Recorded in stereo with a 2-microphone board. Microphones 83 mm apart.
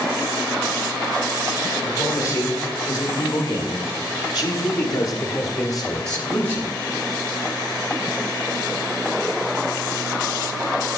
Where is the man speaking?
45° left (ahead or behind), 2.5 m; by 6.8 s 35° left (ahead or behind), 2 m.